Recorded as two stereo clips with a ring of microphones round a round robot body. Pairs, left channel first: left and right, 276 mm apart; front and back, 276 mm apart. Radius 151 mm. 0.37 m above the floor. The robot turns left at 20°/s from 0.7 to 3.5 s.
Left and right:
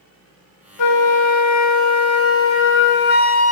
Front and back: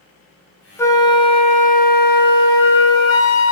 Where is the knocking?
I don't hear knocking.